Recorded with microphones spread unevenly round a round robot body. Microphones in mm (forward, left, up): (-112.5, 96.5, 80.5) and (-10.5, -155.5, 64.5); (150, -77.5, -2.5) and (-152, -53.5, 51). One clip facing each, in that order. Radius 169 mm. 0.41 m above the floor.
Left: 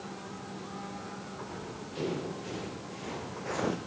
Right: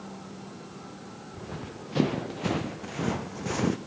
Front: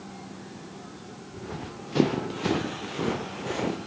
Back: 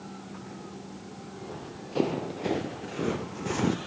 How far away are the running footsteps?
About 3.5 m.